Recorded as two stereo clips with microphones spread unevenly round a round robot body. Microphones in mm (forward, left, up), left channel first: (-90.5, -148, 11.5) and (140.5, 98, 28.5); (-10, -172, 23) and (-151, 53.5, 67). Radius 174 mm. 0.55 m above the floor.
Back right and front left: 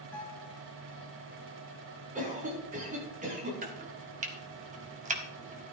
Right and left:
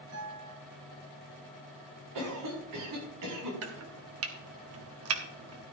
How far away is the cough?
About 6.5 m.